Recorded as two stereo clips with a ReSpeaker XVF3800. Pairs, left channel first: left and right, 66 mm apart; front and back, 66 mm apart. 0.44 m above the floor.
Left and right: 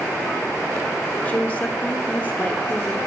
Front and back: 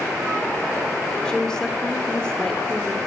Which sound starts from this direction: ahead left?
A woman speaking, at 1.2 s.